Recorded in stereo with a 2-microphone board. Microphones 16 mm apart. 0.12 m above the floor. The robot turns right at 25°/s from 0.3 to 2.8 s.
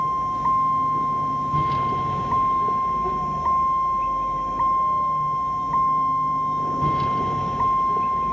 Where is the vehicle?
25° right; by 8.3 s 35° left.